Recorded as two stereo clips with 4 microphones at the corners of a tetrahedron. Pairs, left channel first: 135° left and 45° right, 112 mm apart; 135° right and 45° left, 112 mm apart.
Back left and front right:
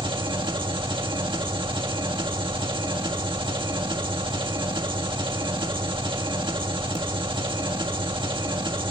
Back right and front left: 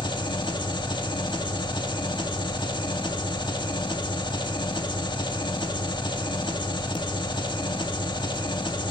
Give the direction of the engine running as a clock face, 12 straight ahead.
3 o'clock.